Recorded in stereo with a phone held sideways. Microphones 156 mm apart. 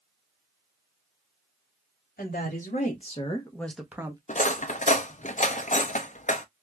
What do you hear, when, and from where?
2.2 s a woman speaking: 65° left (ahead or behind), 1.7 m; by 4.2 s 20° right (ahead or behind), 1.1 m
4.3 s cutlery clinking: 50° left (ahead or behind), 0.6 m